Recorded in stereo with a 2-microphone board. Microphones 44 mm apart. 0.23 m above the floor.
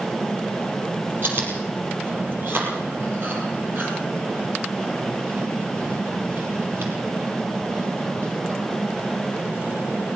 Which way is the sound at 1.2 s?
50° right (ahead or behind).